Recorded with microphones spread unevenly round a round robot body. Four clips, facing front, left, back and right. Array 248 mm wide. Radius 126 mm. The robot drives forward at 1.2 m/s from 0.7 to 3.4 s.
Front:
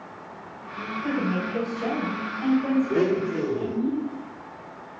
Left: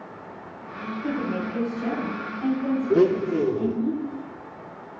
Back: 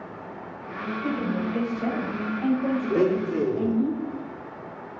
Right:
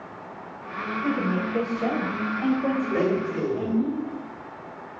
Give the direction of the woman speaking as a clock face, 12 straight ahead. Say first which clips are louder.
Right 1 dB, front 1 dB; 2 o'clock.